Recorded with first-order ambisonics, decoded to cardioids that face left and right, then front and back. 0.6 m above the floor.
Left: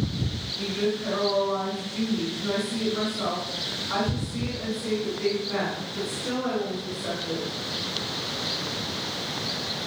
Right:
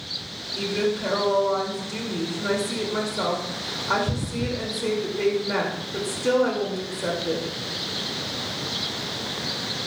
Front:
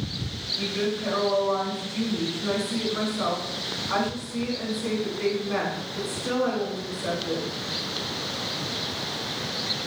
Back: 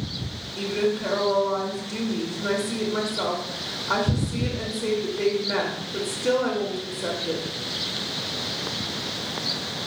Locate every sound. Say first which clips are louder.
0.6 s a woman speaking: right 3 dB, back 4 dB; 130° right, 2.5 m